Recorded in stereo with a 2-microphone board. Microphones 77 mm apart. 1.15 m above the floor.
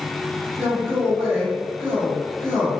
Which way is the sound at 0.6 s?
25° right (ahead or behind).